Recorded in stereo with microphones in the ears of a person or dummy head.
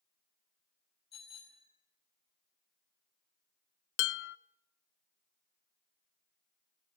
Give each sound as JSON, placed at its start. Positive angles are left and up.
{"t": 1.1, "sound": "a bicycle bell", "side_deg": 25, "distance_m": 5.0}
{"t": 4.0, "sound": "dishes clattering", "side_deg": 60, "distance_m": 0.6}